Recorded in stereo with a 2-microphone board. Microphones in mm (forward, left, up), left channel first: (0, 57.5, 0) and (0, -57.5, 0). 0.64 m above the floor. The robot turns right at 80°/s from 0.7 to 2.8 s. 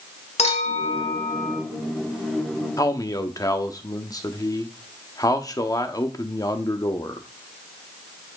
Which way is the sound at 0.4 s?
90° left.